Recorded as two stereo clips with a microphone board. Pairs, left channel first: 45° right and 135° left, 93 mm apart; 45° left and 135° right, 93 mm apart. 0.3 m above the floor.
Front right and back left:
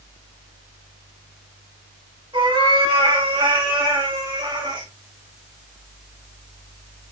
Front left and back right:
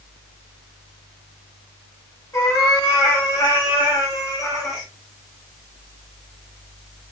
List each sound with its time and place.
2.3 s a cat meowing: 105° left, 8 m; by 4.9 s 100° left, 9.5 m